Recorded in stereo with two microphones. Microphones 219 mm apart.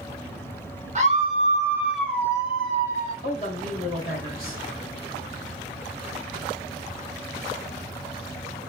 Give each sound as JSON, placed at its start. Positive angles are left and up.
{"t": 0.9, "sound": "a scream", "side_deg": -35, "distance_m": 1.1}
{"t": 3.2, "sound": "a woman speaking", "side_deg": 40, "distance_m": 1.8}